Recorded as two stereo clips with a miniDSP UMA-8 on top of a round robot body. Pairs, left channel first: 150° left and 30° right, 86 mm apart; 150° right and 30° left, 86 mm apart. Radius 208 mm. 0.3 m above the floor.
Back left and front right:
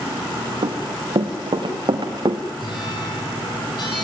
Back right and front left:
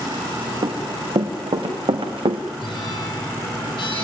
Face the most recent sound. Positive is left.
turn(degrees=-175)